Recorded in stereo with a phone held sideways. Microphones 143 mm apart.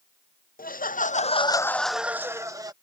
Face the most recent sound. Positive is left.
turn(degrees=-25)  # may be behind; listen again after turning